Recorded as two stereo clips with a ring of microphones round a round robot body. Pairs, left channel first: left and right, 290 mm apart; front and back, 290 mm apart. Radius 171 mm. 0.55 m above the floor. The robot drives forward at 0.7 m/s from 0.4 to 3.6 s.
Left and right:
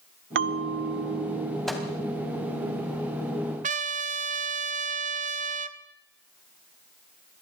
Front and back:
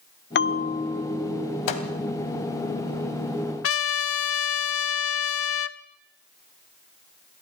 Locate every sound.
0.3 s a bell: 45° right, 1.2 m; by 1.6 s 100° right, 1.0 m
1.7 s a microwave: straight ahead, 2.5 m
3.6 s a trumpet: 30° right, 1.0 m